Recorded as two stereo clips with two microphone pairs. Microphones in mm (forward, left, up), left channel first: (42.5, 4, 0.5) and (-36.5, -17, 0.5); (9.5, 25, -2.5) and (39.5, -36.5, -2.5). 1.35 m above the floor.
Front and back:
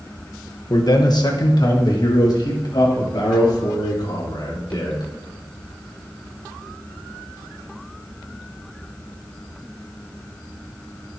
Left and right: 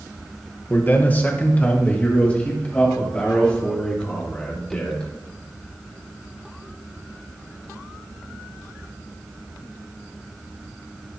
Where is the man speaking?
55° left, 1.1 m; by 5.1 s 40° left, 4.5 m.